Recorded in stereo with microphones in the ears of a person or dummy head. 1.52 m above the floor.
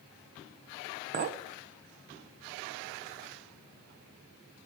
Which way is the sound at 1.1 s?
40° right (ahead or behind).